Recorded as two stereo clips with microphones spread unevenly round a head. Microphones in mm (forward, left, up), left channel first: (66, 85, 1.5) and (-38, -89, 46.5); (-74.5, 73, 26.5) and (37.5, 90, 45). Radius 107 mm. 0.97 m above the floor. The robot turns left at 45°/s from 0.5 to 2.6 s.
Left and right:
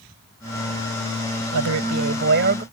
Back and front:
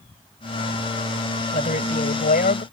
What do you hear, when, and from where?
1.5 s a man speaking: 125° right; by 2.6 s 170° right